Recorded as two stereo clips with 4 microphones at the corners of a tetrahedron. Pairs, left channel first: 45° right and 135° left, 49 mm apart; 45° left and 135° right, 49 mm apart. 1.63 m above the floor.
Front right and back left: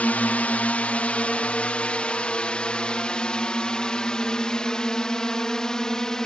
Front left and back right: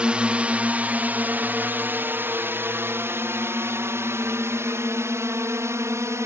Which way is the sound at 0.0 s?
80° right.